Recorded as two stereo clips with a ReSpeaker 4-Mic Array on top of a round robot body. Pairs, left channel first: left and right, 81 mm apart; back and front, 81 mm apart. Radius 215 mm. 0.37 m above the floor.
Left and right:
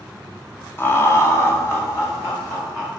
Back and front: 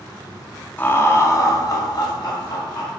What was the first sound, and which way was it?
Laughter, 130° left.